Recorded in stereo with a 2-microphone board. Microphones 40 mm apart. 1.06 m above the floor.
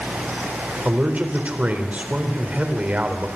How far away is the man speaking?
About 3.5 m.